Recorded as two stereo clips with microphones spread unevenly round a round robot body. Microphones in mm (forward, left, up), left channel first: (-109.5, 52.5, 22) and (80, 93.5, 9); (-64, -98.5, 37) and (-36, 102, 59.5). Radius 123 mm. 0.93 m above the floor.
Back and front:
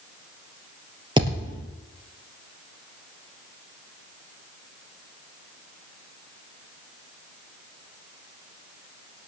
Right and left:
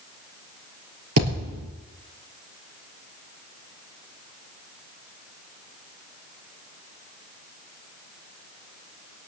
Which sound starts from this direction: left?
A thud, at 1.2 s.